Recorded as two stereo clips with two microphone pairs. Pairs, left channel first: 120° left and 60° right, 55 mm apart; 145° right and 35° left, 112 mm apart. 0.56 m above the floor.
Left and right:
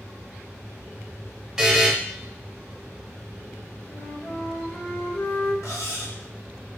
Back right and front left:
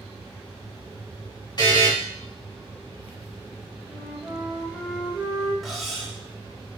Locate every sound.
1.6 s a buzzer: 140° right, 1.5 m
3.9 s a flute: 115° left, 1.5 m
5.6 s cutlery clinking: 125° left, 1.0 m